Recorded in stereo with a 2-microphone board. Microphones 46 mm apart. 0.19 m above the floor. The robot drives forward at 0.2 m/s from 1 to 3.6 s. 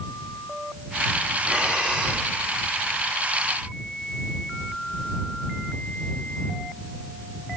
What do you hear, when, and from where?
1.4 s breathing: 20° right (ahead or behind), 1.1 m